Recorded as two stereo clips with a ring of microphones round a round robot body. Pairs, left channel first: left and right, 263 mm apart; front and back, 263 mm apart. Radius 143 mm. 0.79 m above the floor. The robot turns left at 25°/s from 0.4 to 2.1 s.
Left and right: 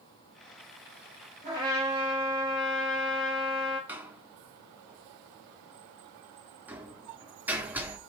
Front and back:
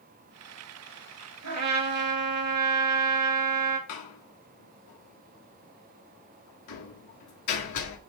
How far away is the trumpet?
About 3.5 m.